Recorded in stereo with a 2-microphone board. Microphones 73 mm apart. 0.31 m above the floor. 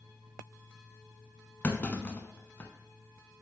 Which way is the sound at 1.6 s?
25° left (ahead or behind).